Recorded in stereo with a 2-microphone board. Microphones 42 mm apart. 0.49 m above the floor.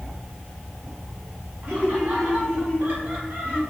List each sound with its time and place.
1.6 s laughter: 60° right (ahead or behind), 4.5 m; by 3.6 s 50° right (ahead or behind), 3.5 m